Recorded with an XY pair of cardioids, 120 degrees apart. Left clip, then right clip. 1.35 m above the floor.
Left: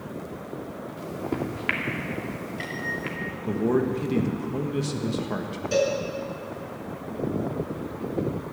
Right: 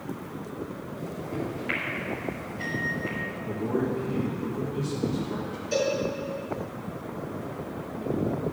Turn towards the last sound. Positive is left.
turn(degrees=25)